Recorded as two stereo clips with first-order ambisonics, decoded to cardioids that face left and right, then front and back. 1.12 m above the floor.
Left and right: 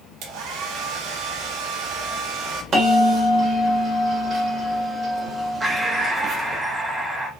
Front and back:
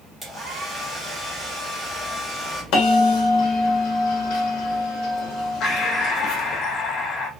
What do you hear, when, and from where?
0.2 s a hair dryer: 90° right, 1.2 m
2.7 s a bell: 30° right, 1.1 m
5.6 s breathing: 20° right, 0.6 m